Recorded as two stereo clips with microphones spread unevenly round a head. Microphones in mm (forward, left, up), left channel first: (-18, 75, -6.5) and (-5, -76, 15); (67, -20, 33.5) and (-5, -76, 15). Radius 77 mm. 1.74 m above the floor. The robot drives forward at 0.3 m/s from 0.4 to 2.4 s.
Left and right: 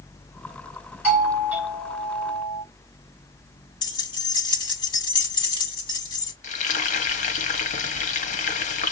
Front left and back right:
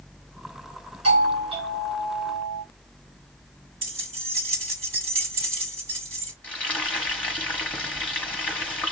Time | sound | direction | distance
1.0 | a doorbell | 165° right | 4.5 m
3.8 | keys jangling | 160° left | 1.5 m
6.4 | frying | 95° left | 0.8 m